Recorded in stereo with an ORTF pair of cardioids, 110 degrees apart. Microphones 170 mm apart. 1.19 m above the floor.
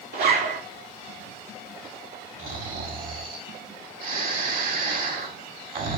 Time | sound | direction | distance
0.1 | a zipper | 70° right | 3.5 m
2.4 | snoring | 60° right | 2.5 m